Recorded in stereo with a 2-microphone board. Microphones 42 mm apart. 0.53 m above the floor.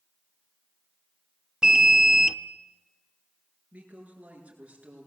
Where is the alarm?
15° right (ahead or behind), 0.9 m.